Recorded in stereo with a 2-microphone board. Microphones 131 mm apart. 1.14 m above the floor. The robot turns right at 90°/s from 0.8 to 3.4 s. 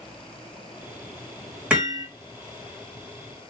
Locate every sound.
1.7 s hammering: 170° right, 1.4 m; by 2.1 s 140° right, 1.4 m